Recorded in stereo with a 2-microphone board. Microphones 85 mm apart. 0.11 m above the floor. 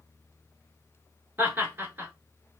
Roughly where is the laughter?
Right.